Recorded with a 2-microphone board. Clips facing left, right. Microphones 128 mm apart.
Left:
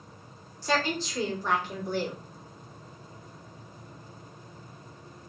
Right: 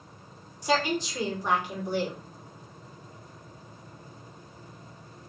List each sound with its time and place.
0.6 s a woman speaking: 15° right (ahead or behind), 1.8 m